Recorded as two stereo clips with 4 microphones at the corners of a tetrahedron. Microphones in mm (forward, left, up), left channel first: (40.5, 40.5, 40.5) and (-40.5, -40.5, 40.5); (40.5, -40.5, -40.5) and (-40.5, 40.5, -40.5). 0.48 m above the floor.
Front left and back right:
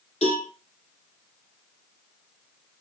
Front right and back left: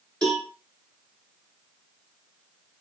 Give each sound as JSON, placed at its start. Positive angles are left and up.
{"t": 0.2, "sound": "a cowbell", "azimuth_deg": 35, "distance_m": 5.0}